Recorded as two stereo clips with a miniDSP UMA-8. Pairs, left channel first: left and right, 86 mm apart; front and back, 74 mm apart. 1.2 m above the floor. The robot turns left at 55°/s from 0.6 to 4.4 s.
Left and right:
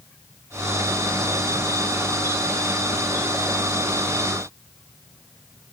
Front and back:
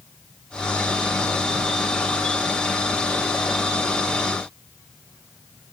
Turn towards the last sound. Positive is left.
No sound to turn to.